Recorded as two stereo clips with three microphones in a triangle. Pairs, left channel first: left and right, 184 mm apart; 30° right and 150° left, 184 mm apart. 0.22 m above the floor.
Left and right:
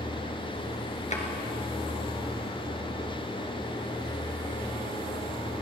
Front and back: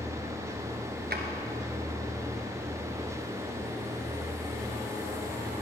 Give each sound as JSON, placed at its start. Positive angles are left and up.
{"t": 1.1, "sound": "a drawer", "azimuth_deg": 135, "distance_m": 2.0}